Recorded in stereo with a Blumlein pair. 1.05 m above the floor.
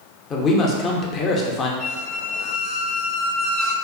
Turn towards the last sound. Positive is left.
turn(degrees=30)